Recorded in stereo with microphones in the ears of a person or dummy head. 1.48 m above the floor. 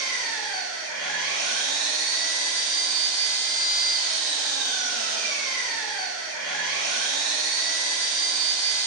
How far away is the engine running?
About 0.9 m.